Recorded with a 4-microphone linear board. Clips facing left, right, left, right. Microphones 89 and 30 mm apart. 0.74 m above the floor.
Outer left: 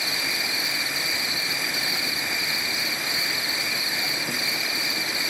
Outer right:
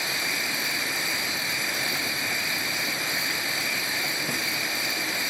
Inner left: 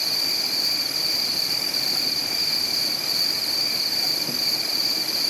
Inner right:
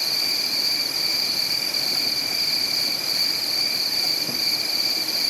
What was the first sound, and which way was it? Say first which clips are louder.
An insect: even, inner right 1 dB; 5° left (ahead or behind).